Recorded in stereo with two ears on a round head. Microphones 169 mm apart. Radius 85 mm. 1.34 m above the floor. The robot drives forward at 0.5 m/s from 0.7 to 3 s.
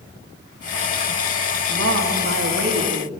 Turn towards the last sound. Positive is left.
turn(degrees=-60)  # may be behind; listen again after turning